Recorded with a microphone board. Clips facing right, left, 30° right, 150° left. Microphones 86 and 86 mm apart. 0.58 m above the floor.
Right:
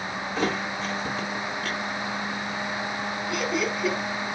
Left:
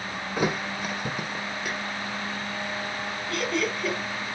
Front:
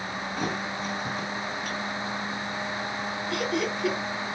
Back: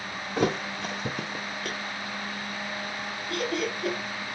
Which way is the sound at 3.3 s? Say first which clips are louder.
Even, front 1 dB; 175° right.